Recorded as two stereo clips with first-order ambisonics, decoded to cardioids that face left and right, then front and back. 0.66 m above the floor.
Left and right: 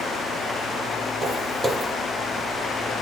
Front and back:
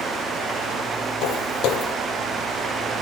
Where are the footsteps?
15° right, 0.9 m.